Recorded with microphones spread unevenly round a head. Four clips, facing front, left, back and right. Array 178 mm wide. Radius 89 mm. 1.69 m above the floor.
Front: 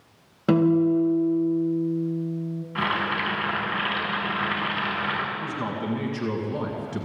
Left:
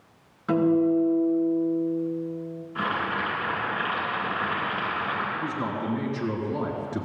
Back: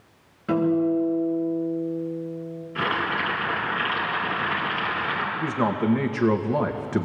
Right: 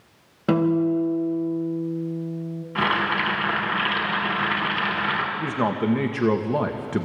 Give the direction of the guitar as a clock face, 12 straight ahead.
1 o'clock.